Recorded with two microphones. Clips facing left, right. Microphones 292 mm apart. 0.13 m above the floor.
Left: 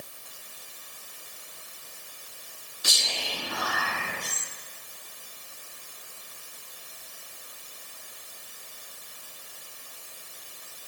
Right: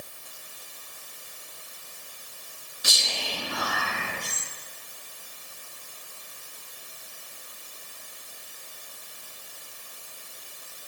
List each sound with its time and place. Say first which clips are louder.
2.8 s whispering: right 1 dB; 25° right (ahead or behind), 2.0 m